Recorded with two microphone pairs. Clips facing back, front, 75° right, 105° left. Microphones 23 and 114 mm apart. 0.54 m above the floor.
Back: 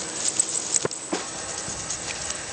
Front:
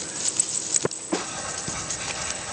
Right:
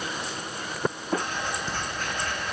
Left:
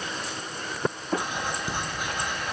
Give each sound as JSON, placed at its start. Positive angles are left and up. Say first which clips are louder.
{"t": 1.2, "sound": "writing", "louder": "front 1 dB, even", "azimuth_deg": 30, "distance_m": 2.5}